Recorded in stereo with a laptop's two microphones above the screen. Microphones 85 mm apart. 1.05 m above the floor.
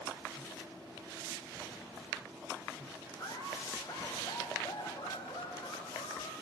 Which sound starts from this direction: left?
Laughter, at 3.2 s.